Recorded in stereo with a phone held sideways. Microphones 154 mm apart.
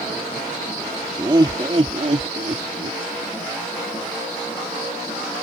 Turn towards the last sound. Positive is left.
turn(degrees=-60)  # may be behind; listen again after turning